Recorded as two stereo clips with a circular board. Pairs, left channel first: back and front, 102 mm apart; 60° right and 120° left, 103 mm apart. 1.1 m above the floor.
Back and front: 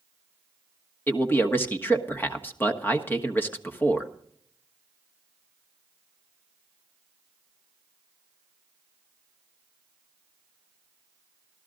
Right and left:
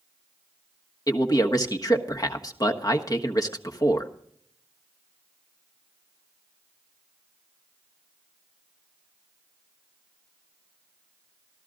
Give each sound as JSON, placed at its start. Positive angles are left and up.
{"t": 1.1, "sound": "a man speaking", "azimuth_deg": -110, "distance_m": 1.3}